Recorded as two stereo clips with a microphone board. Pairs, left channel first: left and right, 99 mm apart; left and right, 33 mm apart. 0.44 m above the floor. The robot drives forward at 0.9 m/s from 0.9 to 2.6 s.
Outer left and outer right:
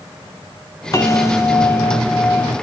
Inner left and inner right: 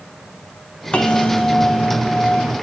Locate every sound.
0.9 s a bell: 35° left (ahead or behind), 1.8 m; by 2.5 s 20° left (ahead or behind), 3 m